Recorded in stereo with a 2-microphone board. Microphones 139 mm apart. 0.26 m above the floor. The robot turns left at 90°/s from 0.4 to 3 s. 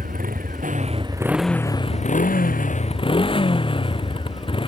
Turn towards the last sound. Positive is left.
turn(degrees=40)